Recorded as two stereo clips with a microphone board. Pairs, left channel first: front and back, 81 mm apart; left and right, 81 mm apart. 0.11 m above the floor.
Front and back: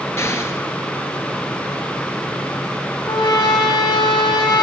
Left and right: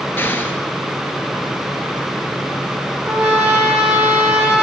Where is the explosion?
40° left, 1.5 m.